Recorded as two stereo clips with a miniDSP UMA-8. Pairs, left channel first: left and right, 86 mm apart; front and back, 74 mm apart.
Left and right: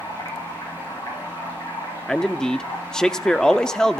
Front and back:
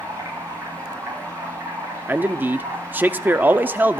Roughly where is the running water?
Behind left.